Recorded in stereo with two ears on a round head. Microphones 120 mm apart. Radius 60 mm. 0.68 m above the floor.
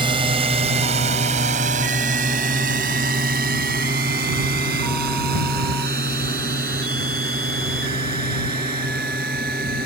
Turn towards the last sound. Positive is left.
turn(degrees=-75)  # may be behind; listen again after turning